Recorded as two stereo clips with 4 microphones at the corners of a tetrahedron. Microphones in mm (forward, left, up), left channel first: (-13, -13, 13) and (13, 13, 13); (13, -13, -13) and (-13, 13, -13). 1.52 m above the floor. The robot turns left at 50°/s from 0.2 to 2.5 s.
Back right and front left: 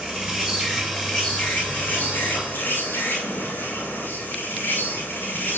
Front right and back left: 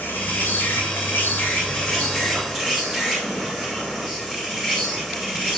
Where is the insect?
35° right, 9.5 m; by 5.6 s 150° right, 9.5 m.